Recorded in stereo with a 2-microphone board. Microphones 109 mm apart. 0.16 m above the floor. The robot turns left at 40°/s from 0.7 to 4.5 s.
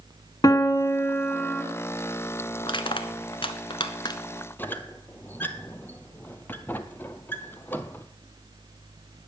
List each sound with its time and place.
0.4 s a piano: 65° left, 1.4 m; by 1.6 s 30° left, 1.4 m
2.6 s crushing: 45° left (ahead or behind), 1.0 m; by 4.2 s 40° left (ahead or behind), 1.0 m
4.6 s a squeak: 20° left (ahead or behind), 0.7 m